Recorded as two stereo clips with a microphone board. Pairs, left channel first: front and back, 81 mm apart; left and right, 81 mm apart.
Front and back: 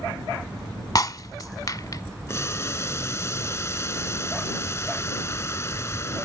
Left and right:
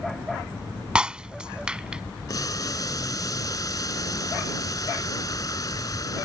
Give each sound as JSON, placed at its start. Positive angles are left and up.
{"t": 0.9, "sound": "breaking glass", "azimuth_deg": -15}
{"t": 2.3, "sound": "boiling", "azimuth_deg": 55}